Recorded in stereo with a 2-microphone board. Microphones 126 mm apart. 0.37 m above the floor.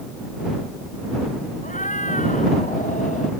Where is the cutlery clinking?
No cutlery clinking in this recording.